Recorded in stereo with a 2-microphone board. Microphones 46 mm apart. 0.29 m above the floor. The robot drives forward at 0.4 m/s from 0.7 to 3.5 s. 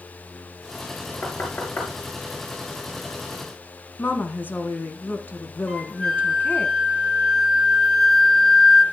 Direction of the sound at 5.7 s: Centre (ahead or behind).